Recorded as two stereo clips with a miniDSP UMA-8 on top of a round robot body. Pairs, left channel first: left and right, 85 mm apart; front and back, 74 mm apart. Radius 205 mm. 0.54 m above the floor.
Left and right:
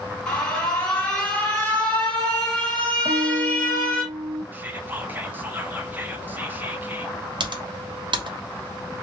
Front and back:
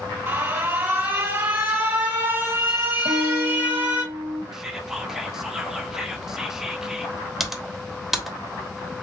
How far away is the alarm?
About 2.0 m.